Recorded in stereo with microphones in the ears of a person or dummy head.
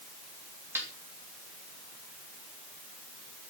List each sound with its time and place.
0.8 s a snare drum: 5° right (ahead or behind), 3 m